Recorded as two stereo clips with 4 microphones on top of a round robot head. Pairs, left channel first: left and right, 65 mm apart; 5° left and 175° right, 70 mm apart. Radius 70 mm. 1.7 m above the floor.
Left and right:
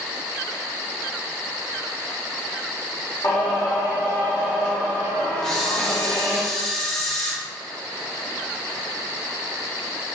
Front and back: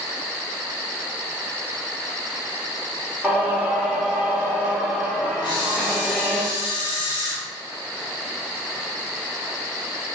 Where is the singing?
110° left, 0.9 m.